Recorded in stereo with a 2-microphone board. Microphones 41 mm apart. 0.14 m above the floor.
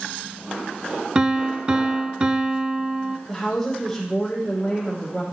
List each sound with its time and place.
1.1 s a piano: 20° right (ahead or behind), 0.5 m
3.3 s a woman speaking: 10° left (ahead or behind), 5 m